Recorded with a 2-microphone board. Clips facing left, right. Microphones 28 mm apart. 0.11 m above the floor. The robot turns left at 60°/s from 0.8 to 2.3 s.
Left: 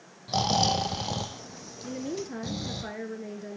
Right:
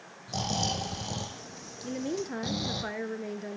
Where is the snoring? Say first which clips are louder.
Left 6 dB; 60° left, 2.0 m; by 2.8 s 30° right, 2.0 m.